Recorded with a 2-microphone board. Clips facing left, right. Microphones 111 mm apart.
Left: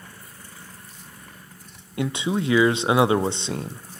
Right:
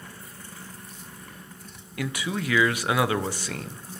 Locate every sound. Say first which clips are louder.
2.0 s a man speaking: left 5 dB; 25° left (ahead or behind), 0.6 m